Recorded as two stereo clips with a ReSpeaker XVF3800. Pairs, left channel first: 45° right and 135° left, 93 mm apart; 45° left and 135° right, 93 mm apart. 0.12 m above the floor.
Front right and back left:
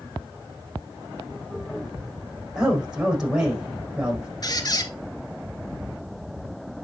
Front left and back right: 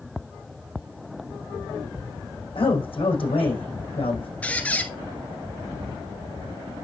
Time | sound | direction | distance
2.5 | a man speaking | 50° left | 4.5 m
4.4 | a squeak | 25° right | 1.1 m